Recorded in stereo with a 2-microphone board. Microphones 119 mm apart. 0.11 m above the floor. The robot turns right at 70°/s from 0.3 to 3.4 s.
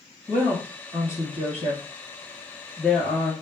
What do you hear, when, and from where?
0.3 s a woman speaking: 5° right (ahead or behind), 1.8 m; by 3.3 s 30° left (ahead or behind), 1.8 m